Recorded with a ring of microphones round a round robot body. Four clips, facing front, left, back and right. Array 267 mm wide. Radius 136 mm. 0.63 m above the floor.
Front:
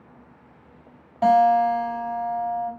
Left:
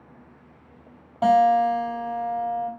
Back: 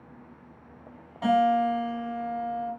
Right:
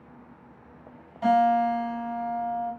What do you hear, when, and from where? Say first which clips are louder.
1.2 s a guitar: left 3 dB, front 6 dB; 60° left, 3.5 m